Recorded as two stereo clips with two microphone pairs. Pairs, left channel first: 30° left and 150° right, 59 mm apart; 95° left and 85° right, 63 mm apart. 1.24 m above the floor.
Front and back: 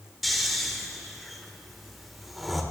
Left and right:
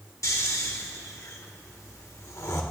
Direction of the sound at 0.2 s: 120° left.